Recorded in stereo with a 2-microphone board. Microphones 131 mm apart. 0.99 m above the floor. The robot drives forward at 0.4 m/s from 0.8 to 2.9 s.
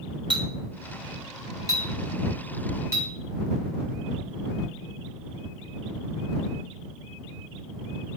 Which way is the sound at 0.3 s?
35° right (ahead or behind).